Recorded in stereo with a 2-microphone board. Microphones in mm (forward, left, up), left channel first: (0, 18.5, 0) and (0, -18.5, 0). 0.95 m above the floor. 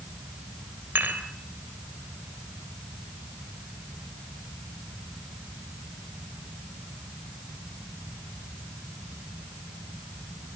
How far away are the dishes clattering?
About 3 m.